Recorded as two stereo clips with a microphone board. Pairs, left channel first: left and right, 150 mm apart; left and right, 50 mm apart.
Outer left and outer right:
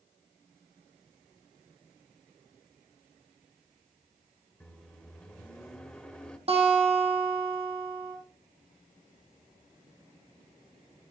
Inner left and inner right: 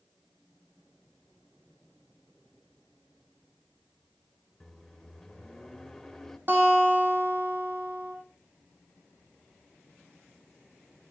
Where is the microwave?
10° left (ahead or behind), 1.6 m.